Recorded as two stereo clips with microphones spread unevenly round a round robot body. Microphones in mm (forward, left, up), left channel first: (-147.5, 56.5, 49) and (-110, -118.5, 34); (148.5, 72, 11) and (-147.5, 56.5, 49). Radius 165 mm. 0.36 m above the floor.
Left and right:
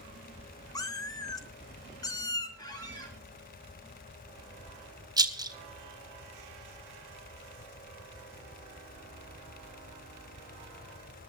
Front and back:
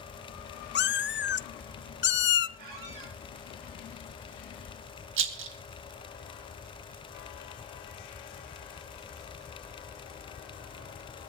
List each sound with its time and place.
0.8 s a cat meowing: 30° left, 0.6 m
2.6 s a squeak: 170° left, 5 m
5.2 s a rattle: 135° right, 1.9 m